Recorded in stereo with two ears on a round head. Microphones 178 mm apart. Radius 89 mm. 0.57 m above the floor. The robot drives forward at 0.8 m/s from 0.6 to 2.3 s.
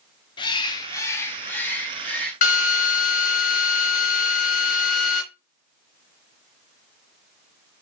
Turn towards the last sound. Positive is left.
turn(degrees=40)  # may be behind; listen again after turning